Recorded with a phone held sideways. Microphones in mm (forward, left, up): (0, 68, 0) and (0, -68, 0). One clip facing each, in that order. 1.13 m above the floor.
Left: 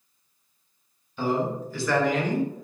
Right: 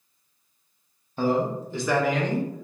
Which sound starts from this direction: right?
A man speaking, at 1.2 s.